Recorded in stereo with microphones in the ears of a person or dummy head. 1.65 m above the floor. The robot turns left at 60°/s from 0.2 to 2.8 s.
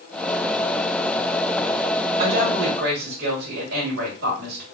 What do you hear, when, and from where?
2.2 s a woman speaking: 25° right, 2.0 m; by 4.6 s 60° right, 2.0 m